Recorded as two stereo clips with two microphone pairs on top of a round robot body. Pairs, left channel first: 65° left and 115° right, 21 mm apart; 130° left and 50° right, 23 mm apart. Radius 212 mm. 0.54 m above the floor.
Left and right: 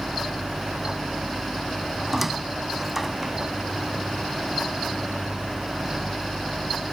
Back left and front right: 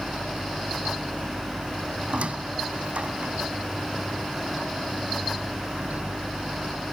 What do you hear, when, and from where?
2.1 s a squeak: 30° right